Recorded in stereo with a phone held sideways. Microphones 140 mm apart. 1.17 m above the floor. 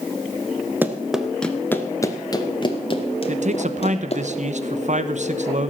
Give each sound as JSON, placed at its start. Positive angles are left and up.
{"t": 0.8, "sound": "running footsteps", "side_deg": -15, "distance_m": 1.1}
{"t": 3.3, "sound": "a man speaking", "side_deg": -55, "distance_m": 1.0}